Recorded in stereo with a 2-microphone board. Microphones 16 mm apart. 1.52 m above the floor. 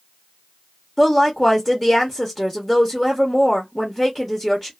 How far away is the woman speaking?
About 0.9 m.